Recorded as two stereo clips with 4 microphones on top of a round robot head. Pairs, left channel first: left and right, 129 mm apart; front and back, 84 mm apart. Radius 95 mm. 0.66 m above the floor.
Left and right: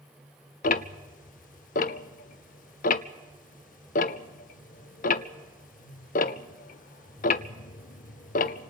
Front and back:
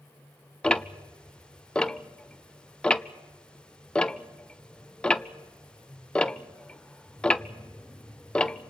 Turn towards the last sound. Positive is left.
turn(degrees=80)